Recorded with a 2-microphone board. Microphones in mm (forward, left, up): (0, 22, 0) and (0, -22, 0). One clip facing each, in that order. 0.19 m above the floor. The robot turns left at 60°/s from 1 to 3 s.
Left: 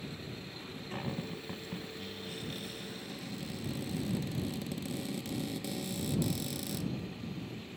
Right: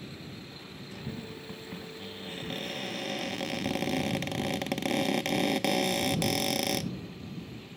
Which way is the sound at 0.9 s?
40° left.